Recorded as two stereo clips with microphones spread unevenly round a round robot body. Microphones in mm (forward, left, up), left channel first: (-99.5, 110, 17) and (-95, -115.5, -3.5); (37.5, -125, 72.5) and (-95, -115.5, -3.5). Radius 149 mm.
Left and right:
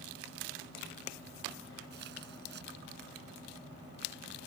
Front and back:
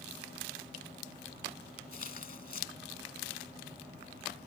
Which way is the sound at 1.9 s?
30° right.